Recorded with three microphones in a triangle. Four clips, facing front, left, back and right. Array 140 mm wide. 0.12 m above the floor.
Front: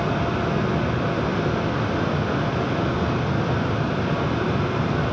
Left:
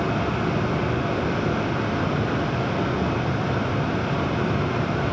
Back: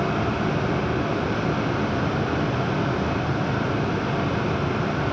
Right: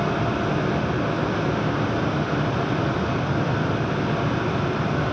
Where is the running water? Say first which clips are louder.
Right 1 dB, even; 20° right, 3.5 m.